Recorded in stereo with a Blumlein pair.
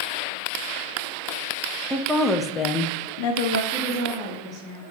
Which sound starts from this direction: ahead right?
A woman speaking, at 3.7 s.